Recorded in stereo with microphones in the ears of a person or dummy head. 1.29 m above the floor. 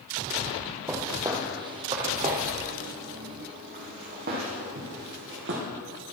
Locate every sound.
0.9 s footsteps: 10° right (ahead or behind), 1.8 m; by 5.6 s 60° right (ahead or behind), 3.5 m